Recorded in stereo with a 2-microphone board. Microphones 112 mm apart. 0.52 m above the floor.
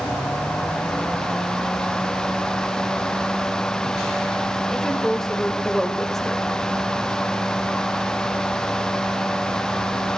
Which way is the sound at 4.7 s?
5° left (ahead or behind).